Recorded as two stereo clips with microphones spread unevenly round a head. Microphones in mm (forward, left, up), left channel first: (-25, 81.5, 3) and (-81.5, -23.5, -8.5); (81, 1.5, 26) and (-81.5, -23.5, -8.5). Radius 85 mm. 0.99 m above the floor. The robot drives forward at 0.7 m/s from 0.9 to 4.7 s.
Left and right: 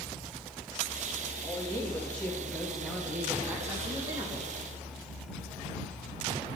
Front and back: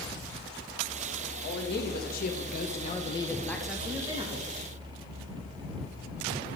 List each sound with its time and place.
1.4 s a man speaking: 15° right, 1.7 m; by 4.5 s 150° right, 1.1 m